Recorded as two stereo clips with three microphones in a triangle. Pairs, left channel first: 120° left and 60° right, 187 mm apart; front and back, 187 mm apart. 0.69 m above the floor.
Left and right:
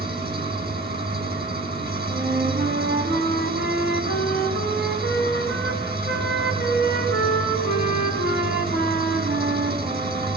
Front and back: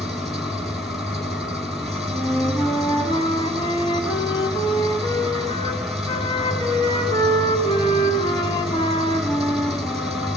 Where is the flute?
65° right, 5.5 m.